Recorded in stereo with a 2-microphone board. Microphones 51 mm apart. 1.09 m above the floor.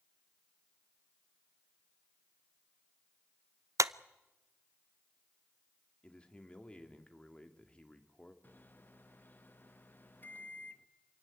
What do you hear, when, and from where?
3.8 s a clap: 80° right, 0.5 m
6.0 s a man speaking: 20° left (ahead or behind), 2 m
8.4 s a microwave: 40° left (ahead or behind), 1.1 m